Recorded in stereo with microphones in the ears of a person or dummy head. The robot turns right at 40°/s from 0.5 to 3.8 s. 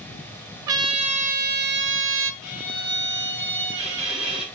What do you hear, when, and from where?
0.7 s a trumpet: 155° right, 0.6 m; by 2.3 s 90° right, 0.6 m
2.4 s a violin: 125° left, 6.5 m; by 4.5 s straight behind, 6.5 m